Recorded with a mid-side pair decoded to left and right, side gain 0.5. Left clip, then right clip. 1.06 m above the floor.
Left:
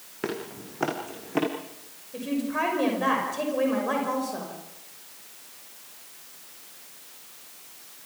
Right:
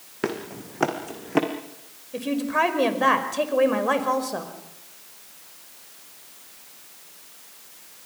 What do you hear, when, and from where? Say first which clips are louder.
0.2 s running footsteps: right 3 dB; 35° right, 4 m
2.1 s a woman speaking: right 5 dB; 40° right, 5 m